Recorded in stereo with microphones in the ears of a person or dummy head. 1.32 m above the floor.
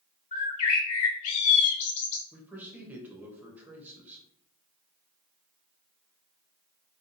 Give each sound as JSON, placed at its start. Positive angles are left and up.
{"t": 0.3, "sound": "a bird", "side_deg": 45, "distance_m": 0.9}
{"t": 2.3, "sound": "a man speaking", "side_deg": -5, "distance_m": 0.8}